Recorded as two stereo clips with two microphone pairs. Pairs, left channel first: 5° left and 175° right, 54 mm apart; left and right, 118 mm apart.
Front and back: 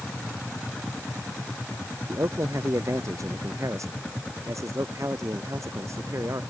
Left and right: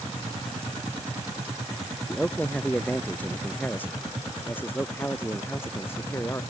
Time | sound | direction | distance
2.1 | a man speaking | 170° left | ?